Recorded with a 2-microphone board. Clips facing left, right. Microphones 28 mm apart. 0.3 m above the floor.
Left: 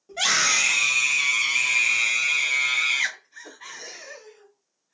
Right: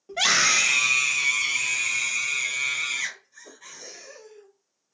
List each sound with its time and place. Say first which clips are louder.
0.1 s a scream: right 1 dB; 20° right (ahead or behind), 1.3 m; by 5.0 s 60° left (ahead or behind), 2.5 m